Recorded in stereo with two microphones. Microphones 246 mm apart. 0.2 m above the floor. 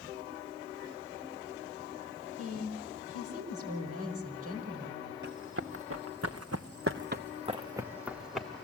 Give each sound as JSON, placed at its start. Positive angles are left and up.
{"t": 2.4, "sound": "a woman speaking", "side_deg": -75, "distance_m": 5.0}
{"t": 5.2, "sound": "running footsteps", "side_deg": -50, "distance_m": 1.7}